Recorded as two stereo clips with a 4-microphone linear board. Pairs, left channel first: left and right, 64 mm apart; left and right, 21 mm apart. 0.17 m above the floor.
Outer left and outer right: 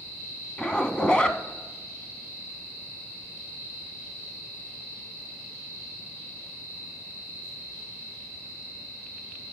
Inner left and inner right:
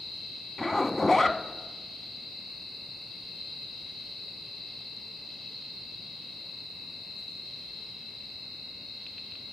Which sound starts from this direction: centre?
A zipper, at 0.6 s.